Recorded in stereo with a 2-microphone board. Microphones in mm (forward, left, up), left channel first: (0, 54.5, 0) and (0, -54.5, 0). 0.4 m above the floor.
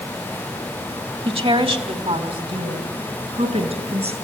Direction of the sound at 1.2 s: 60° right (ahead or behind).